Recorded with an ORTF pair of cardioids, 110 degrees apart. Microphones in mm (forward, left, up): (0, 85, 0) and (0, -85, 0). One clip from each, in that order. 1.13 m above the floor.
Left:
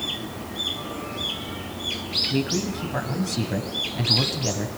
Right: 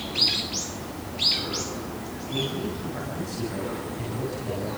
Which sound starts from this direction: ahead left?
A man speaking, at 2.3 s.